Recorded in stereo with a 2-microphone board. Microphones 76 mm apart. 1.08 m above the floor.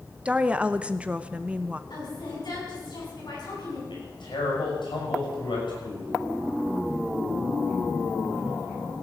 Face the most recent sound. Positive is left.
turn(degrees=85)